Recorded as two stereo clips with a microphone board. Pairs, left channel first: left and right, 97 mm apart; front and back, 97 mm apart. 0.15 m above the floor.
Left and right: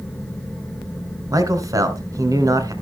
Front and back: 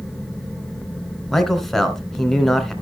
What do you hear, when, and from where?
1.3 s a man speaking: 85° right, 1.4 m